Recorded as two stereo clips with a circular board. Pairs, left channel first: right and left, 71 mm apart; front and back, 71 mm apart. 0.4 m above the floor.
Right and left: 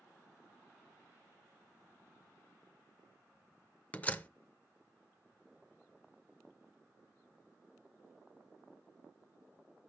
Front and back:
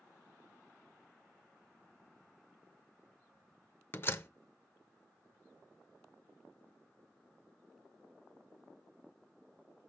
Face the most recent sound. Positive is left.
turn(degrees=-35)